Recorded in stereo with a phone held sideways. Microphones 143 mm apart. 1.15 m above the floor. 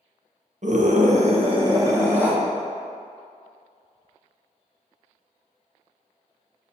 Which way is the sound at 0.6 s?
60° right (ahead or behind).